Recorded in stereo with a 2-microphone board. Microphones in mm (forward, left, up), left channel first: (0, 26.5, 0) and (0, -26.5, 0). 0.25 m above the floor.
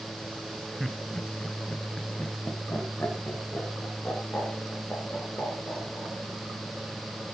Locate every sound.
0.8 s laughter: centre (ahead or behind), 1.2 m; by 6.1 s 35° left (ahead or behind), 4 m